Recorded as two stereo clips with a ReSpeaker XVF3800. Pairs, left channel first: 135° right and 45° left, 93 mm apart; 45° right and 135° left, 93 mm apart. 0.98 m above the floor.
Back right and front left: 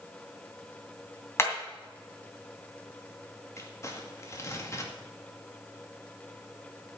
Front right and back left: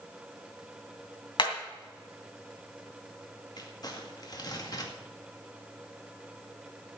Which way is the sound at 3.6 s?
80° right.